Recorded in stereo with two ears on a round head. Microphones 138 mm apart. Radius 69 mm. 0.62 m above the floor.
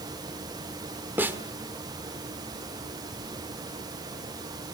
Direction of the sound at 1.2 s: 10° right (ahead or behind).